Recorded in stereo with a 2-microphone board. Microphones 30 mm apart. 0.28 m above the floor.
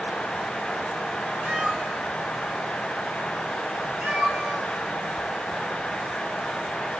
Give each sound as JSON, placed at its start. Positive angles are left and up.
{"t": 1.4, "sound": "a cat meowing", "side_deg": -10, "distance_m": 1.5}